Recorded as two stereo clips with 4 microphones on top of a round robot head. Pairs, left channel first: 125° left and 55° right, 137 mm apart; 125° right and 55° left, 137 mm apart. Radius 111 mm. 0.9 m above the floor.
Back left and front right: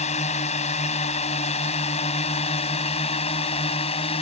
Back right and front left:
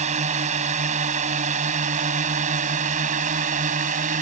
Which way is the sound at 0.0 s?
90° left.